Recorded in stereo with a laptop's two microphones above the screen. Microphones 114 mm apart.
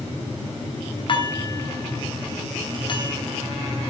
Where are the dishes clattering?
45° left (ahead or behind), 3.5 m.